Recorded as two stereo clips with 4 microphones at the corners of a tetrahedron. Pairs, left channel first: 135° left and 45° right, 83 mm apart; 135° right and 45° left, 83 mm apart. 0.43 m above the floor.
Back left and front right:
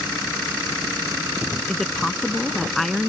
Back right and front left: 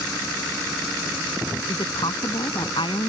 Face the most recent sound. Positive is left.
turn(degrees=-140)